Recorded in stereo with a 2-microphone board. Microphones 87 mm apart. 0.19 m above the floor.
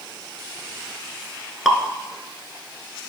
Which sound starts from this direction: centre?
Dripping, at 1.6 s.